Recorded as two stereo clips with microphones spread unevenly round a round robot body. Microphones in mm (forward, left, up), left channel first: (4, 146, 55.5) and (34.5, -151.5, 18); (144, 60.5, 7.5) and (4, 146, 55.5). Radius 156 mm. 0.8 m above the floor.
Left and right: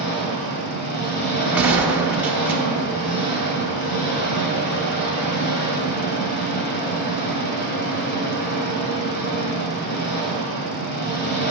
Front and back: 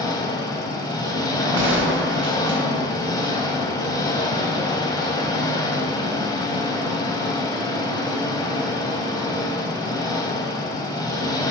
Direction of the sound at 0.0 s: 40° left.